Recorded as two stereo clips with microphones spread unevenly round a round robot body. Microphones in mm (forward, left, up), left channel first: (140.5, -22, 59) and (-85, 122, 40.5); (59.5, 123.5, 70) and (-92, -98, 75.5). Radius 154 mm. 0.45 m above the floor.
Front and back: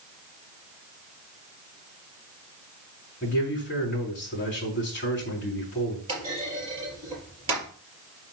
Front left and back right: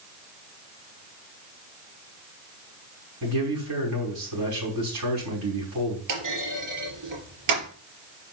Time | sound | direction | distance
3.2 | a man speaking | 95° right | 4.5 m
6.1 | a clunk | 140° right | 4 m